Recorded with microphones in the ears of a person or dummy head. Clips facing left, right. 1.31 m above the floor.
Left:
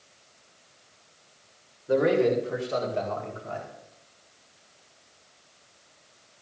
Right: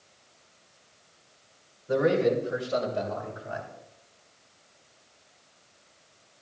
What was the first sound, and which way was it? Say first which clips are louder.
A man speaking: left 1 dB; 40° left (ahead or behind).